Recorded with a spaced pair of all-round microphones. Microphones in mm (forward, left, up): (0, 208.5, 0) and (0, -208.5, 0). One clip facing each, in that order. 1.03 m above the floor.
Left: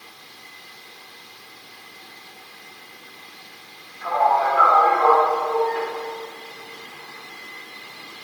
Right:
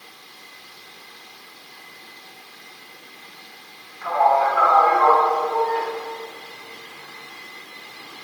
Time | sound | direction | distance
4.0 | a man speaking | 55° left (ahead or behind) | 3 m